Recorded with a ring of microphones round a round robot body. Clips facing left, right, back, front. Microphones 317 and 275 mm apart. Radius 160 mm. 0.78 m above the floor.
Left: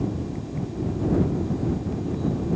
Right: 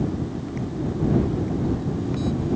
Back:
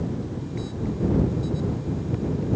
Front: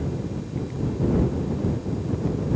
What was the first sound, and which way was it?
Only background noise.